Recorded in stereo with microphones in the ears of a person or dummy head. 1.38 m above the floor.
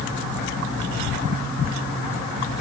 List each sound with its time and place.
Only background noise.